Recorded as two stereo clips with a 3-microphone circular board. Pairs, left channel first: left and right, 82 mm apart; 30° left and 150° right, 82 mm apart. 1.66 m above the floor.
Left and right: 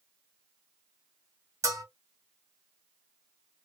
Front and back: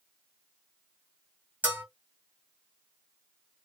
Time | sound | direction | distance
1.6 | a bell | 90° right | 1.9 m